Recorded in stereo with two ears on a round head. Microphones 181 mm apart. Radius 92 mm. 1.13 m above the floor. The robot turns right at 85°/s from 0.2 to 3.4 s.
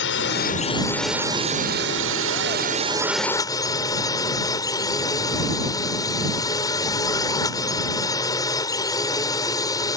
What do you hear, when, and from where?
0.0 s a drone: 105° left; by 10.0 s 20° left